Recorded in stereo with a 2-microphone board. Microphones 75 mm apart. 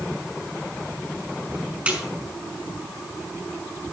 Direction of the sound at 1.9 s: 15° right (ahead or behind).